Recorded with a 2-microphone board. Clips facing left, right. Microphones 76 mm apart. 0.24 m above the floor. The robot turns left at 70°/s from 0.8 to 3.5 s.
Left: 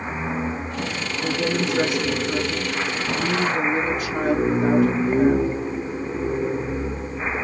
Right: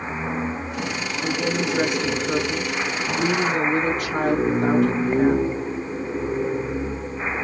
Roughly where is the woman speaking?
Ahead left.